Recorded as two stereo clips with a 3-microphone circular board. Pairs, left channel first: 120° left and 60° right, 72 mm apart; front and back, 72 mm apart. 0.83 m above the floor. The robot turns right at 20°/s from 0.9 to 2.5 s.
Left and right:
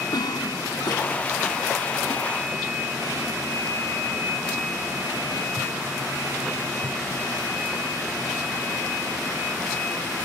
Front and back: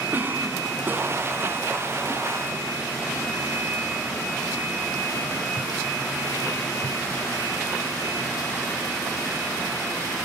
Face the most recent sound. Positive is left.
turn(degrees=150)